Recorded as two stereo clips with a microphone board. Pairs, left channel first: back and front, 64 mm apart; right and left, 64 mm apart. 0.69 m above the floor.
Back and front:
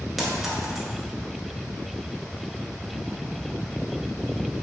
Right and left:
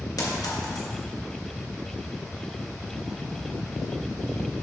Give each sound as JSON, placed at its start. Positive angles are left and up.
{"t": 0.2, "sound": "a clink", "azimuth_deg": -90, "distance_m": 1.8}